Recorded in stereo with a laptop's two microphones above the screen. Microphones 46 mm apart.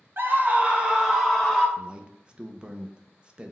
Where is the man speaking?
20° right (ahead or behind), 0.5 m.